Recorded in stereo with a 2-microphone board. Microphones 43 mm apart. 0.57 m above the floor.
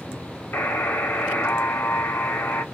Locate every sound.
0.5 s a buzzer: 65° left (ahead or behind), 0.7 m